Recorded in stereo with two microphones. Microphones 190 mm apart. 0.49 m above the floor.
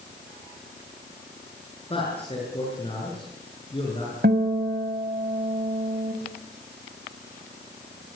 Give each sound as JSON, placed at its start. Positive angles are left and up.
{"t": 1.9, "sound": "a man speaking", "side_deg": 30, "distance_m": 8.0}
{"t": 4.2, "sound": "a guitar", "side_deg": -60, "distance_m": 3.0}